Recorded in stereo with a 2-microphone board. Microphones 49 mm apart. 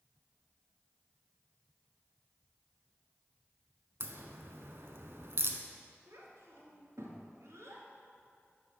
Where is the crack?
60° right (ahead or behind), 0.8 m.